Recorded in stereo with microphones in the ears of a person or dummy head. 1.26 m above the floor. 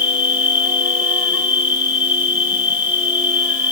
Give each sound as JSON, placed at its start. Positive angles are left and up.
{"t": 0.0, "sound": "an insect", "side_deg": -15, "distance_m": 3.0}